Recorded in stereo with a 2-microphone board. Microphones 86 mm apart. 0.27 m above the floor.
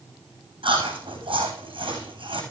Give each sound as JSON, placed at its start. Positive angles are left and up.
{"t": 0.6, "sound": "chewing", "side_deg": -80, "distance_m": 5.5}